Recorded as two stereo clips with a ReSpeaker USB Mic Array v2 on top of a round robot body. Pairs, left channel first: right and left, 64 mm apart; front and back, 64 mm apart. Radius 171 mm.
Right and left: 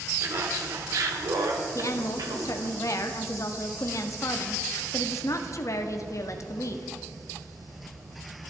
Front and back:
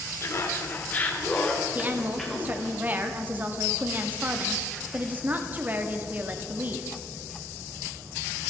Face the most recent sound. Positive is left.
turn(degrees=-120)